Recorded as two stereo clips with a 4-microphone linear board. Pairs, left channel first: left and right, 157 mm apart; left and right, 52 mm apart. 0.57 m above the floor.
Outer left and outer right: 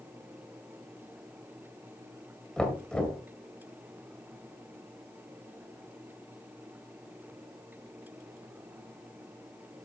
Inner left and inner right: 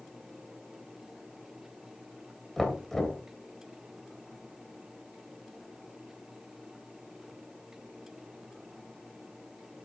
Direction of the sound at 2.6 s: 5° left (ahead or behind).